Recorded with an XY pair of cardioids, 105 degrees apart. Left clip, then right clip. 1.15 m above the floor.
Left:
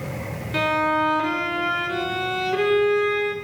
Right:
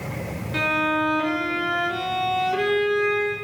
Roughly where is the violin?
Ahead left.